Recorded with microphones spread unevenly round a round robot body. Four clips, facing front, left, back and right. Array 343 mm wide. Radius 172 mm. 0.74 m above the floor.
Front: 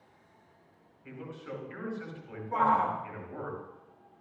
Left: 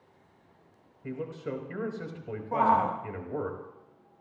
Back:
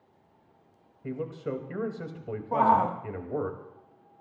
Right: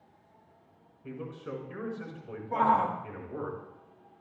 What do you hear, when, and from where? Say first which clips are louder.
1.0 s a man speaking: left 4 dB, back 9 dB; 160° left, 4 m
2.5 s a shout: left 1 dB, back 4 dB; straight behind, 1.3 m